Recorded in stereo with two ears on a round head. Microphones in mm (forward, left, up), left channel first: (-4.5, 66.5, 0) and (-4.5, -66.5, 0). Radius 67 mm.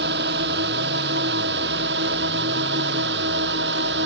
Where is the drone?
80° right; by 4.0 s 85° right.